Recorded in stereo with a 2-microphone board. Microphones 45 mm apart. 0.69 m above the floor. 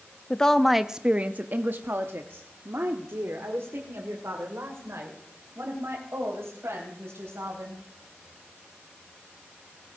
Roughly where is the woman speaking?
Centre.